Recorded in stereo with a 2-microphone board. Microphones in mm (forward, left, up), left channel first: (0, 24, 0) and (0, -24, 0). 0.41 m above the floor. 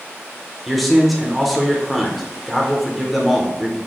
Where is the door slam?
No door slam in this recording.